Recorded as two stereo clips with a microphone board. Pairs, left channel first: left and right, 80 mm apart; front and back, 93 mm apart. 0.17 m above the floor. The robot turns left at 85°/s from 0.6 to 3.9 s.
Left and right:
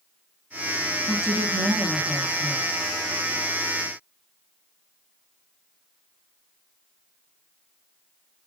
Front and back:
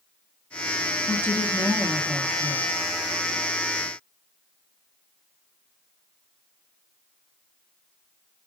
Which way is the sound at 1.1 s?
55° right.